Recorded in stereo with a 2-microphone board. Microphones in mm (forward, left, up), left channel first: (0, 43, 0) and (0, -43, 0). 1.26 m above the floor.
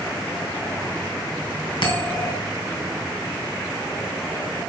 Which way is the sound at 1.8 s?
70° left (ahead or behind).